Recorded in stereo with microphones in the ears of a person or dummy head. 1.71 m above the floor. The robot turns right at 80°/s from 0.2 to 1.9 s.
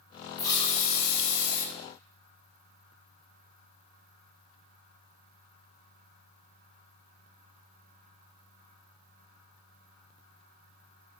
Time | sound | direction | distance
0.4 | a hiss | 20° left | 0.6 m